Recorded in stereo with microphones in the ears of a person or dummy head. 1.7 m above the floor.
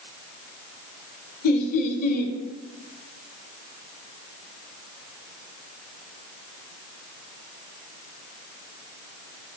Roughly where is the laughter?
Left.